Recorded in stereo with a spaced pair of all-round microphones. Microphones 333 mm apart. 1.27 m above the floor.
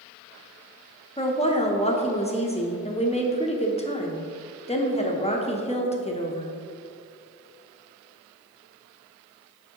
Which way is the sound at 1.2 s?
20° left (ahead or behind).